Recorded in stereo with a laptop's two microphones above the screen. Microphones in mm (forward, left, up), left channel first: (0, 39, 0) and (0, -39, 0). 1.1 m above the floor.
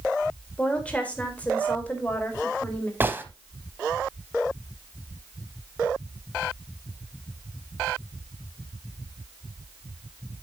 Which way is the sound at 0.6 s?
15° left (ahead or behind).